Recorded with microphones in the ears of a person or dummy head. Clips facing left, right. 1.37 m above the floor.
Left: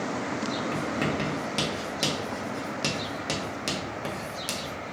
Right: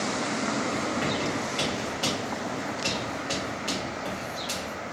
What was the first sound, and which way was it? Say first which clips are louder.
Writing: even; 50° left (ahead or behind).